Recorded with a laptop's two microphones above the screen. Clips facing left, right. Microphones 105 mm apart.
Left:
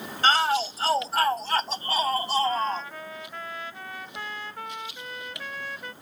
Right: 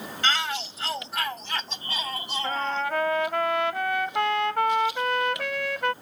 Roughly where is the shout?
Left.